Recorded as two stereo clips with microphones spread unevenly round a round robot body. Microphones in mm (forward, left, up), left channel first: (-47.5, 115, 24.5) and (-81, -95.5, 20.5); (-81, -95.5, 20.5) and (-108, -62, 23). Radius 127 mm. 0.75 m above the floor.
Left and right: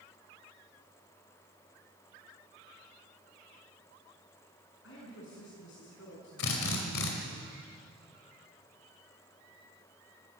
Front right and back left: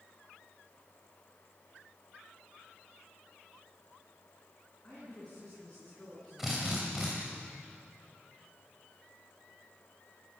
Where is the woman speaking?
30° left, 6.5 m.